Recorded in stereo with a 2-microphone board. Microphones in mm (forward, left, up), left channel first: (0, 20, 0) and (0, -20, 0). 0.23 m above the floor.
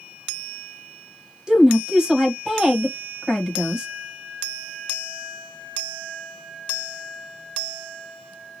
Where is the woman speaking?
20° right (ahead or behind), 1.2 m.